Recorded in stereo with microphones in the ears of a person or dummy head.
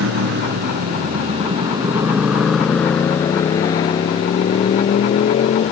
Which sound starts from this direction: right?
A motorcycle, at 0.0 s.